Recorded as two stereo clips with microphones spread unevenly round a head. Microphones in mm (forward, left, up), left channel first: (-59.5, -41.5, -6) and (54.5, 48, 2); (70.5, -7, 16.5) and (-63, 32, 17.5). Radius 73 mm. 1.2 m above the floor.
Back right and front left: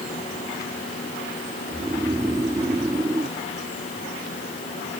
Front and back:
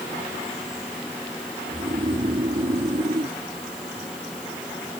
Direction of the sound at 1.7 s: 110° left.